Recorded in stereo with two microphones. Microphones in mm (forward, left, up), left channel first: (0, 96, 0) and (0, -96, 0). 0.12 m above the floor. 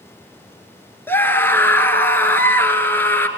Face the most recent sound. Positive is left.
turn(degrees=10)  # may be behind; listen again after turning